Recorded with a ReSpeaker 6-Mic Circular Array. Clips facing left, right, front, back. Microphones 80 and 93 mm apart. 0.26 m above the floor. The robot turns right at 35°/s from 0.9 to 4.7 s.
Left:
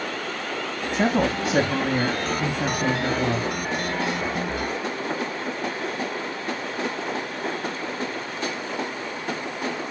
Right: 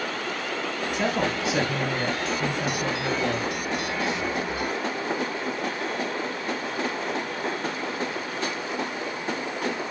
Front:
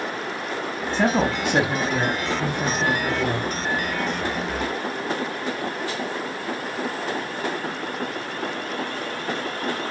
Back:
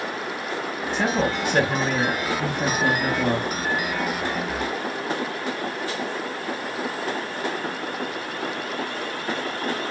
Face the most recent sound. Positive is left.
turn(degrees=175)